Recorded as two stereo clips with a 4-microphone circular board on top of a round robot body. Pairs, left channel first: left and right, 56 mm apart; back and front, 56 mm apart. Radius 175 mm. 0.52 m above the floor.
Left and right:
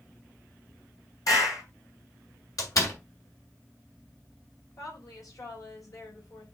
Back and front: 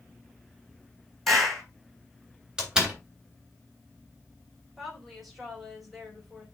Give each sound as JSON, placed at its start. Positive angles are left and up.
{"t": 1.3, "sound": "a clap", "azimuth_deg": 95, "distance_m": 5.5}
{"t": 2.6, "sound": "a door slam", "azimuth_deg": 80, "distance_m": 3.0}
{"t": 4.8, "sound": "a woman speaking", "azimuth_deg": 90, "distance_m": 4.0}